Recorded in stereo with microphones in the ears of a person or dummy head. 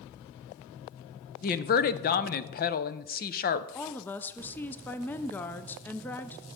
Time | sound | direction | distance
1.4 | a woman speaking | 40° left (ahead or behind) | 0.6 m
3.8 | a woman speaking | 5° left (ahead or behind) | 0.6 m